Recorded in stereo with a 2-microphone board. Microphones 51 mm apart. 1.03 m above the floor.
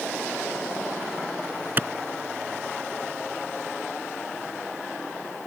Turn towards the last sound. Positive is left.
turn(degrees=-40)  # may be behind; listen again after turning